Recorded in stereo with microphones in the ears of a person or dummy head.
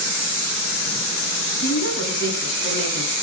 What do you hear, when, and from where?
1.6 s a woman speaking: 65° left (ahead or behind), 10 m